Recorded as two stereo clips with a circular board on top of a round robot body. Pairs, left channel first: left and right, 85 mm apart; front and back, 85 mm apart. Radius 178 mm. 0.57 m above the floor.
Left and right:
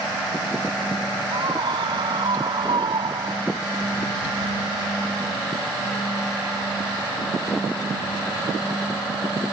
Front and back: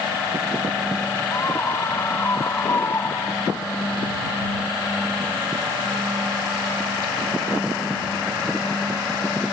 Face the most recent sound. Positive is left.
turn(degrees=-65)